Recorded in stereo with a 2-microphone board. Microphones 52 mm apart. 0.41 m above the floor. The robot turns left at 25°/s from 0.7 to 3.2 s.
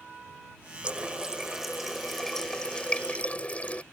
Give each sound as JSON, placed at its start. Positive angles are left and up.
{"t": 0.8, "sound": "a running tap", "azimuth_deg": -155}